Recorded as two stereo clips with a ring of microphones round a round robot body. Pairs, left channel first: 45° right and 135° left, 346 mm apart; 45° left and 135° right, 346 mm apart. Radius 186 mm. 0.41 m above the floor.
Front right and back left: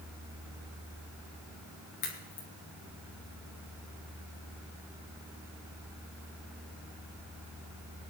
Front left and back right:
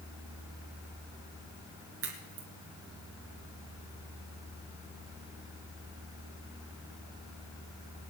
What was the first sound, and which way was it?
A crack, 80° right.